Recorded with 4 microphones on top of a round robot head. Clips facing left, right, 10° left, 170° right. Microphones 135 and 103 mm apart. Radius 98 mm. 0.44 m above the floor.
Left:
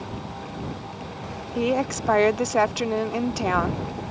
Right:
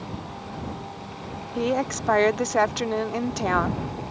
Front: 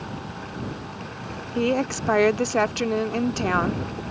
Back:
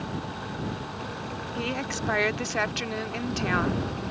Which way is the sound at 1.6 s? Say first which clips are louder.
Left 1 dB, front 10 dB; 10° left.